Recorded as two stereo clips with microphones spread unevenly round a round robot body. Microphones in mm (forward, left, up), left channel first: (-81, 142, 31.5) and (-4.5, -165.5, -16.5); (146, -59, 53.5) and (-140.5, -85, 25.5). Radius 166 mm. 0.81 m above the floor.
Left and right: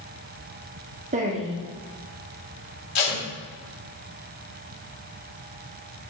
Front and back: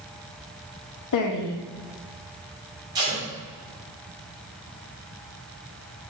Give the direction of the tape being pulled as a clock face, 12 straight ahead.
8 o'clock.